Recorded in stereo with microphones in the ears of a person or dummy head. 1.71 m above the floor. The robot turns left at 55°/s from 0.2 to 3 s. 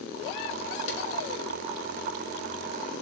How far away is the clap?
About 1.7 m.